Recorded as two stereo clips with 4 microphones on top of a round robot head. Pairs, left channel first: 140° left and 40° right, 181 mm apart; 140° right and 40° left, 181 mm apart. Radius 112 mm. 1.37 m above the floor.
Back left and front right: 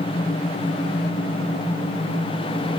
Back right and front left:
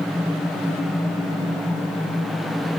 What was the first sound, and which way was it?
Only background noise.